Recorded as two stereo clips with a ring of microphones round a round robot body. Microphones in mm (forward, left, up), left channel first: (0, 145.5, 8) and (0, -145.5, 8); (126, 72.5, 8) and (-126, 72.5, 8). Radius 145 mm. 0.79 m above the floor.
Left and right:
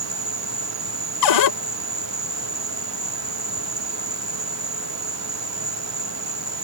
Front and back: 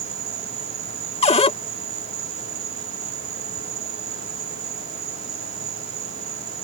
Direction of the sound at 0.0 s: 155° right.